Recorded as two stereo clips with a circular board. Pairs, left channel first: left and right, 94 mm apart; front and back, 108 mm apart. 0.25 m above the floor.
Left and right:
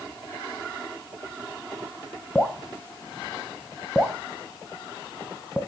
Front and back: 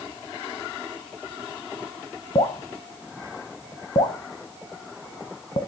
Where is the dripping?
5° right, 0.9 m.